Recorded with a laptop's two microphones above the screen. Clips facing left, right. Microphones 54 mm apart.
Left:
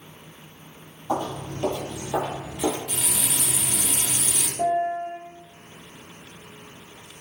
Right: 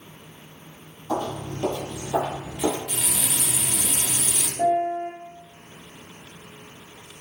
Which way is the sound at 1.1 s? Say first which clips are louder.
Even; 25° left (ahead or behind).